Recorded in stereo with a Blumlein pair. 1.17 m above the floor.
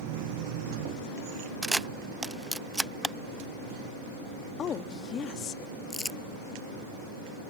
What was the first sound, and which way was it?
A camera shutter, 5° right.